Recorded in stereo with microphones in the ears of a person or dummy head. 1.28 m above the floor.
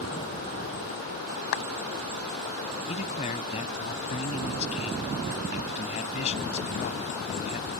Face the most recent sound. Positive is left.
turn(degrees=35)  # may be behind; listen again after turning